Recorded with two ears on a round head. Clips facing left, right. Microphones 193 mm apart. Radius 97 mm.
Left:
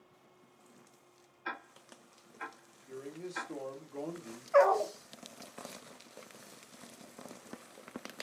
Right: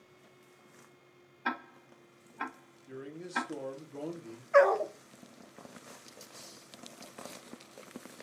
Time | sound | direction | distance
1.4 | ticking | 65° right (ahead or behind) | 1.1 m
2.9 | a man speaking | 10° right (ahead or behind) | 1.6 m
4.5 | a dog barking | 20° right (ahead or behind) | 0.7 m